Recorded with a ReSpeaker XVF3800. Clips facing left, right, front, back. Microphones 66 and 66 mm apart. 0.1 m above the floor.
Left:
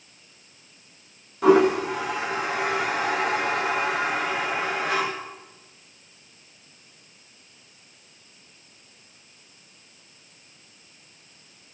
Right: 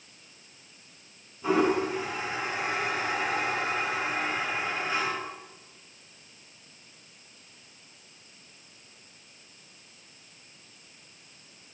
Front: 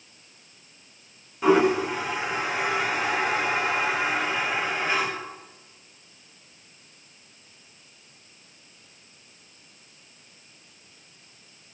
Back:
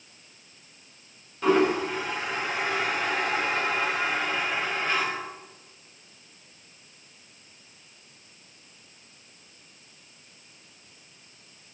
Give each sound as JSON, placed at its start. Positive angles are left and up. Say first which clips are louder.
{"t": 1.4, "sound": "a toilet flushing", "louder": "left 7 dB, front 2 dB", "azimuth_deg": 80, "distance_m": 8.0}